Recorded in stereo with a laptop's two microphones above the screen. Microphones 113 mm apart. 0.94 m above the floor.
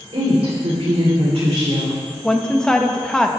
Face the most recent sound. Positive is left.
turn(degrees=5)  # may be behind; listen again after turning